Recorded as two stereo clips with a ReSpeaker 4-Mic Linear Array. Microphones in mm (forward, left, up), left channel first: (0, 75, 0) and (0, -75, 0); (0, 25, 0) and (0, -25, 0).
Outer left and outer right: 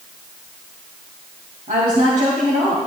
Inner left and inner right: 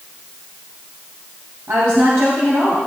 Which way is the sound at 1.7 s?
65° right (ahead or behind).